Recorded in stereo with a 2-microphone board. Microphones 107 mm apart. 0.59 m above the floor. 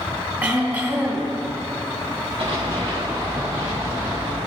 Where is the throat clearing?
20° right (ahead or behind), 1.8 m.